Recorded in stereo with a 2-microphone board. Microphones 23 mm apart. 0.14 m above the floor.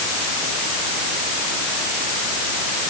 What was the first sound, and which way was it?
Only background noise.